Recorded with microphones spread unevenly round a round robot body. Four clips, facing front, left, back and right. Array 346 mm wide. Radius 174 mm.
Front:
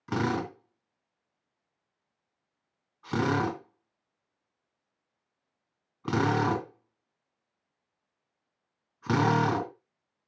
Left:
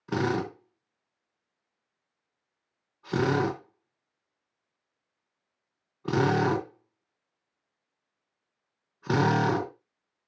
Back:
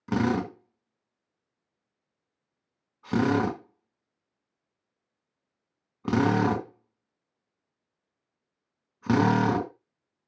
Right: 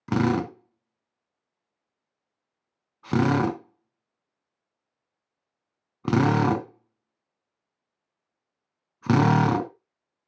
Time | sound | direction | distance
0.1 | a drill | 100° right | 3 m